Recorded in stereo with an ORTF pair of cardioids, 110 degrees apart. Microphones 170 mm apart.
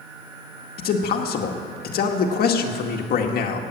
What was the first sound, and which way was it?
A man speaking, 60° left.